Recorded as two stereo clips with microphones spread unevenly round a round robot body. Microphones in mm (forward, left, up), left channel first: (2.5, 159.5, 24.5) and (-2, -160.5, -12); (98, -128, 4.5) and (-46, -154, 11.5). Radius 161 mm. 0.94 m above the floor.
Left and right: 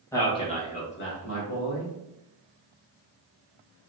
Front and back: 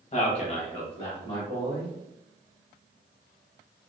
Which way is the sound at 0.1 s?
5° left.